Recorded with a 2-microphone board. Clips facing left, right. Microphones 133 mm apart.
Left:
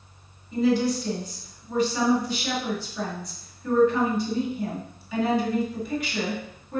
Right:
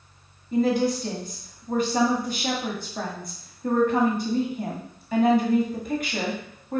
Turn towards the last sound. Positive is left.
turn(degrees=-50)  # may be behind; listen again after turning